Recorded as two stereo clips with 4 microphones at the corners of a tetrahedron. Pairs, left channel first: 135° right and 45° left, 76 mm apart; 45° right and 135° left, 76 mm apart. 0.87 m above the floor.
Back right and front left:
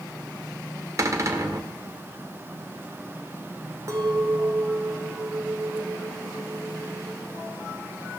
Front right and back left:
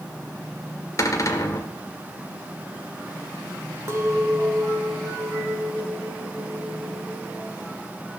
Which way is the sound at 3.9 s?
90° left.